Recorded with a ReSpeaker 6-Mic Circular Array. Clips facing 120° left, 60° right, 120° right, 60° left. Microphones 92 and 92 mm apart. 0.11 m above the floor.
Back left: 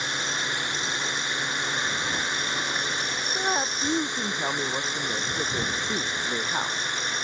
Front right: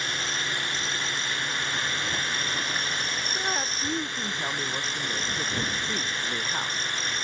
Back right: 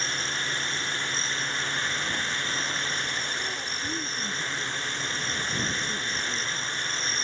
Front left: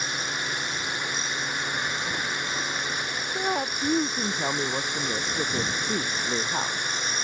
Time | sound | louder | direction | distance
0.0 | a drone | back left 1 dB, front left 1 dB | 105° left | ?
3.4 | a woman speaking | back left 5 dB, front left 7 dB | 50° left | ?